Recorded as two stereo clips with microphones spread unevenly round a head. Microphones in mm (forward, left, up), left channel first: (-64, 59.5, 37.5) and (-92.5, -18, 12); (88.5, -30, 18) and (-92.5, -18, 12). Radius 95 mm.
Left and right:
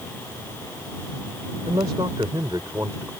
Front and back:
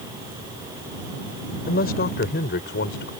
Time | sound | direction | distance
1.7 | a man speaking | 40° right | ?